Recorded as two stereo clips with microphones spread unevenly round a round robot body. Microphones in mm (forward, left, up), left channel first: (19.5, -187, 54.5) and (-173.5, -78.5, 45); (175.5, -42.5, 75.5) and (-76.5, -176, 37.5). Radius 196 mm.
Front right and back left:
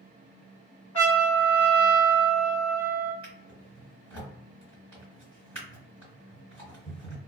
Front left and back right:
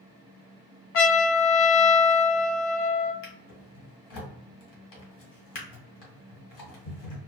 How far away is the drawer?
About 1.3 m.